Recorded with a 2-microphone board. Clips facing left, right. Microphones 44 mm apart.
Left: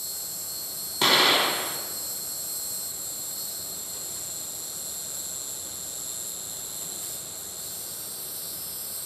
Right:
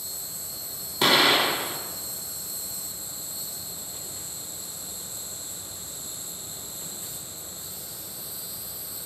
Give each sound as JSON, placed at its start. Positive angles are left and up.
{"t": 0.0, "sound": "an insect", "side_deg": 75, "distance_m": 1.3}
{"t": 1.0, "sound": "an explosion", "side_deg": 0, "distance_m": 1.2}